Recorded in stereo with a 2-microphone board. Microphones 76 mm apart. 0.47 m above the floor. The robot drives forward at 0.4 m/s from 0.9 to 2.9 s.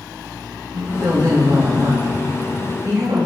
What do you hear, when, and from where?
0.7 s a woman speaking: 60° right (ahead or behind), 2.5 m; by 3.3 s 65° right (ahead or behind), 2.5 m